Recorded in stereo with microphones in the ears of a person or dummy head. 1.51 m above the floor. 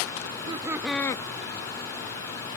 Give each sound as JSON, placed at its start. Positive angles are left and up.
{"t": 0.2, "sound": "laughter", "side_deg": -35, "distance_m": 0.9}